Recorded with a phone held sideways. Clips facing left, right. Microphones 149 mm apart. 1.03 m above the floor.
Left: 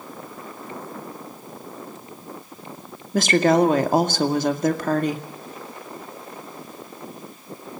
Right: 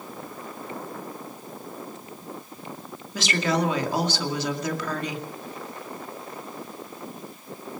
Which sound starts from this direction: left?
A woman speaking, at 3.1 s.